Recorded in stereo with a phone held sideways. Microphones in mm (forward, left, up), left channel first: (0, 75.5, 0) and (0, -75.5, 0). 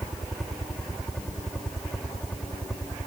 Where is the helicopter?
Centre (ahead or behind); by 3.1 s 5° left (ahead or behind).